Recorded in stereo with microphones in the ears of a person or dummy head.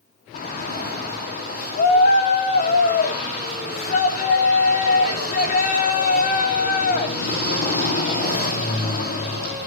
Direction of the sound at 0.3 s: 50° left (ahead or behind).